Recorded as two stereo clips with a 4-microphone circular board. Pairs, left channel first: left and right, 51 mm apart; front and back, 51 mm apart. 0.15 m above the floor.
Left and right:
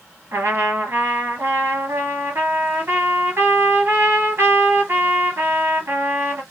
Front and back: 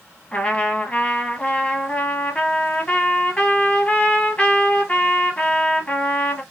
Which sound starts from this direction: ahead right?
A trumpet, at 0.3 s.